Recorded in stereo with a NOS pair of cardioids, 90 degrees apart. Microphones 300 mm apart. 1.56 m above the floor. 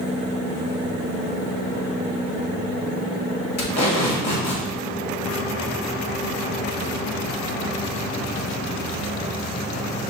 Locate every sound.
3.6 s tape being pulled: 70° left, 3 m